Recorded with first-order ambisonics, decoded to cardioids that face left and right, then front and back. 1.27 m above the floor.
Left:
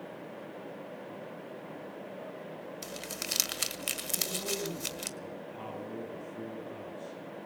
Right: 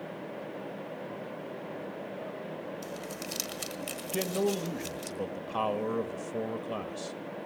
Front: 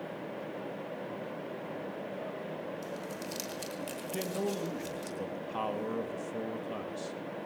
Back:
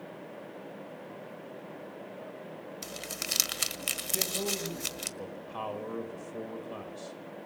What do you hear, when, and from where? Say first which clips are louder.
2.8 s crumpling: even, back 2 dB; 145° left, 1.4 m
4.1 s a man speaking: right 8 dB, even; 75° right, 2 m